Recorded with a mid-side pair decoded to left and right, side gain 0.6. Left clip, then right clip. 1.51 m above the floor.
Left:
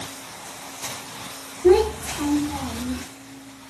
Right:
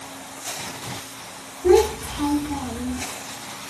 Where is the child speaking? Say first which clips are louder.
Even; 5° right, 1.6 m.